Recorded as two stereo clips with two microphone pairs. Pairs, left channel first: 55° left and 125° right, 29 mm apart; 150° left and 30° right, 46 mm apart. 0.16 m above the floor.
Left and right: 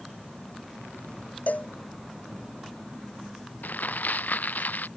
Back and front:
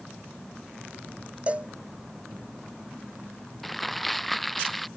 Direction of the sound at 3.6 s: 65° left.